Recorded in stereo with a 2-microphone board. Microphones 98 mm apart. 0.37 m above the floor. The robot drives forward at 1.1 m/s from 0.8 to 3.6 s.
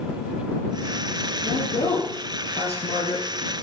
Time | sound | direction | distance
1.4 | a woman speaking | 65° left (ahead or behind) | 7 m